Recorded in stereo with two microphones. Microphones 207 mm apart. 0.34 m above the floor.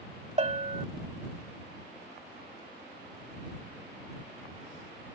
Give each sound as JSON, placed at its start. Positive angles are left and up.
{"t": 0.4, "sound": "a bell", "side_deg": -35}